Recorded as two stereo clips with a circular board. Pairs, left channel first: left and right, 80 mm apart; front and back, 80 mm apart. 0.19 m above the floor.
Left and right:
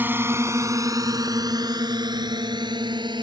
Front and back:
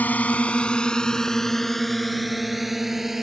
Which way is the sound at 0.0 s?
50° right.